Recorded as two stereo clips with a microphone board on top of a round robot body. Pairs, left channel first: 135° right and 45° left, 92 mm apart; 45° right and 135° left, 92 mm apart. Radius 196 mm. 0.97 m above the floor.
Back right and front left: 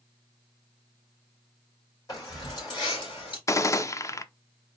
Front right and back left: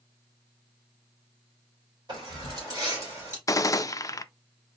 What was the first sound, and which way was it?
Keys jangling, 175° left.